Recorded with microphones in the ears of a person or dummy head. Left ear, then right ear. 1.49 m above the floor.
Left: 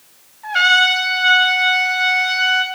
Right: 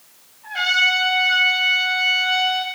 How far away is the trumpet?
About 2 m.